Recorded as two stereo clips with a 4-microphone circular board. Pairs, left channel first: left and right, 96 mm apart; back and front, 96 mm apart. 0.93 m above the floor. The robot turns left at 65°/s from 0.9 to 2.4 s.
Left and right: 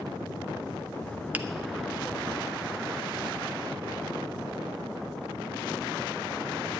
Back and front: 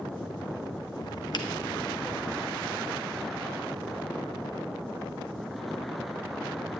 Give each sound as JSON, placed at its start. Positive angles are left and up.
{"t": 1.3, "sound": "a finger snap", "azimuth_deg": -155, "distance_m": 0.8}